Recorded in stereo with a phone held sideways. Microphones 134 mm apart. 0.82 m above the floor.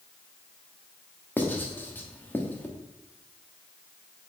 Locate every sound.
1.4 s writing: 15° left (ahead or behind), 1.3 m